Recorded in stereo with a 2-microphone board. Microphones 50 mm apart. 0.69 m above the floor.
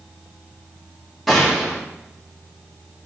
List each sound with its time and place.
1.3 s a gunshot: 5° left (ahead or behind), 1.5 m